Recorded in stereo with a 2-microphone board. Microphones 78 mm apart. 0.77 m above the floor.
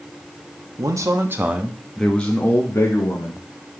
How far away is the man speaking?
About 1.0 m.